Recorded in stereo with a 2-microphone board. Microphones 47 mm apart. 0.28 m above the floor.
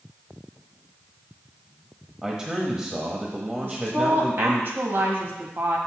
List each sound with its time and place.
2.2 s a man speaking: 15° right (ahead or behind), 1.1 m
3.6 s a woman speaking: 45° right (ahead or behind), 1.7 m